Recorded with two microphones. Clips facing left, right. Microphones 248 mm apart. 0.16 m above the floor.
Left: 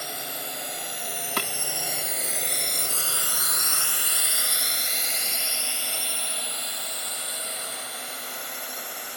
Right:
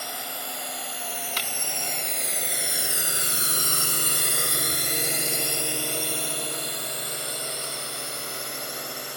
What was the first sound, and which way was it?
A drone, 20° left (ahead or behind).